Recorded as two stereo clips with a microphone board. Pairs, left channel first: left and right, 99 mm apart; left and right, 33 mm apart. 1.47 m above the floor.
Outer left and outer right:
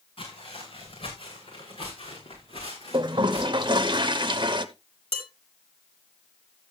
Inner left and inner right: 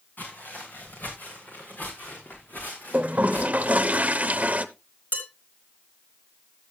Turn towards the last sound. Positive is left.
turn(degrees=80)